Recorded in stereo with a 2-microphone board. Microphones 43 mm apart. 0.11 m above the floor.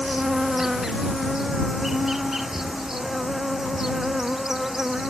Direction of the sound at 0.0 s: 10° right (ahead or behind).